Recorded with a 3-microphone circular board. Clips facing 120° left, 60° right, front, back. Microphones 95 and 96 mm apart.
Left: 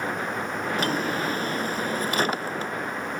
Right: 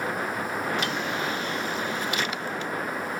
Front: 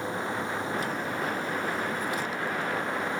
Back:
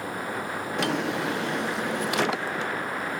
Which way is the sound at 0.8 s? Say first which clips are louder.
Left 3 dB, back 4 dB; 170° left.